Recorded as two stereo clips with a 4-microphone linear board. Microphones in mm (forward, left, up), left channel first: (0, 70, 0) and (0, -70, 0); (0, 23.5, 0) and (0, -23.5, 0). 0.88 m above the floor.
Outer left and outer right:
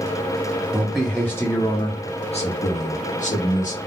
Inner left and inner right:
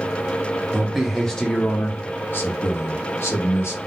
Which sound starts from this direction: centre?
A man speaking, at 0.7 s.